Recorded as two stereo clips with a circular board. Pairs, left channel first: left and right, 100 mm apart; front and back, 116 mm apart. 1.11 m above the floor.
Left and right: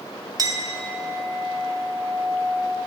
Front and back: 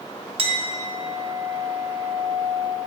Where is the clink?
140° right, 0.6 m.